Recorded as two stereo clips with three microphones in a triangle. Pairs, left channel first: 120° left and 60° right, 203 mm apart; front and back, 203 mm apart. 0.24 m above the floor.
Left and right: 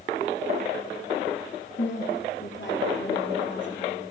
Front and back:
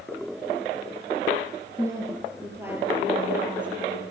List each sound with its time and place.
1.8 s a woman speaking: 105° left, 4.5 m; by 4.1 s 95° left, 7.5 m